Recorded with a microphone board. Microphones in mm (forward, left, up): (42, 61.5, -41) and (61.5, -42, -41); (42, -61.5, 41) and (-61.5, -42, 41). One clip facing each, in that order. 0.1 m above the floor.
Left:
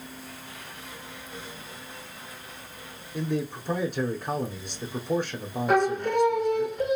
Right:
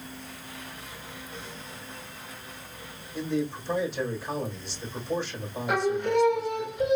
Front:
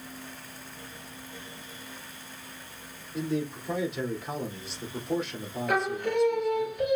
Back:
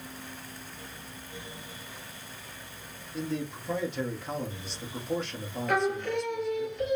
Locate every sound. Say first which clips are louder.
3.1 s a man speaking: even, front 3 dB; 75° left, 2.5 m
5.7 s singing: left 2 dB, even; 70° left, 3 m